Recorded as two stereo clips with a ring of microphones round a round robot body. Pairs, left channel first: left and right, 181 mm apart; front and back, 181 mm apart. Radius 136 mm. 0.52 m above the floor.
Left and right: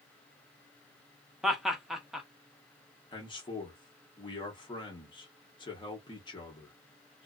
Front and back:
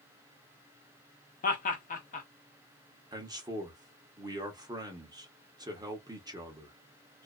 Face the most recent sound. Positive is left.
turn(degrees=130)